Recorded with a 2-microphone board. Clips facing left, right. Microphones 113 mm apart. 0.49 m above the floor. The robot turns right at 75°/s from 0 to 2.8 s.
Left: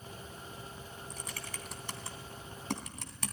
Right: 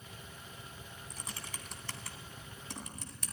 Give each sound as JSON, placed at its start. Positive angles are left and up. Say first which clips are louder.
{"t": 1.1, "sound": "typing on a keyboard", "louder": "left 1 dB", "side_deg": -45, "distance_m": 2.5}